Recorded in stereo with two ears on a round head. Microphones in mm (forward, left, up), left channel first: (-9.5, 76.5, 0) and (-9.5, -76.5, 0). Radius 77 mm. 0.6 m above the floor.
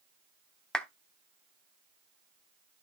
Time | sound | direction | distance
0.7 | a clap | 5° left (ahead or behind) | 1.0 m